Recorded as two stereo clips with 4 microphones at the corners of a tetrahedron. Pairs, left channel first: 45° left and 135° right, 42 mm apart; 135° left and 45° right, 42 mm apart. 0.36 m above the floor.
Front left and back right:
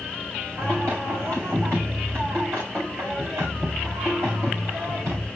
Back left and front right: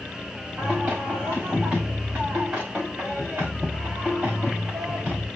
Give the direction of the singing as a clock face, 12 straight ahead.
4 o'clock.